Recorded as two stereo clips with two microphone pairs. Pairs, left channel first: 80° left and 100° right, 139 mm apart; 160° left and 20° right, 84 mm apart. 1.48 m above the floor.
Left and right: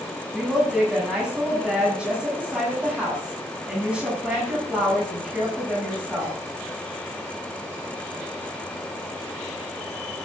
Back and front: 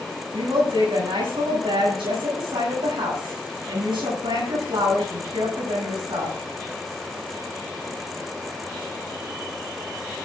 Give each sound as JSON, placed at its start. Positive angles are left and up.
{"t": 0.3, "sound": "a woman speaking", "azimuth_deg": -15, "distance_m": 8.5}